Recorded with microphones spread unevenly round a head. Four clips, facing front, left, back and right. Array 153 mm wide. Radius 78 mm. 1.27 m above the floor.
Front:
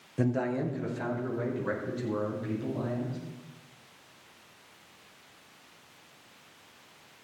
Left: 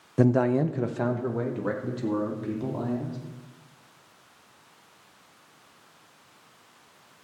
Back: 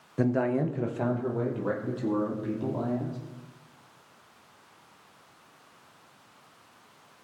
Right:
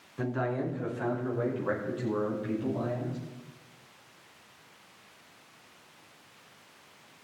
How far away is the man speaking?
About 0.5 m.